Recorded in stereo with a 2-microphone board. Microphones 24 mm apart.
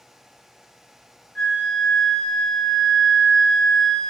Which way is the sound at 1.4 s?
35° left (ahead or behind).